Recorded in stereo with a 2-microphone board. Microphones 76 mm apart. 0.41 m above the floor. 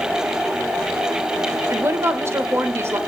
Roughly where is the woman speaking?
Right.